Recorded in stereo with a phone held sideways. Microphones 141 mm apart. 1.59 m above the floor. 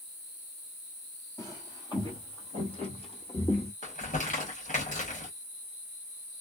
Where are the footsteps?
25° left (ahead or behind), 1.7 m; by 3.7 s 50° left (ahead or behind), 2.5 m.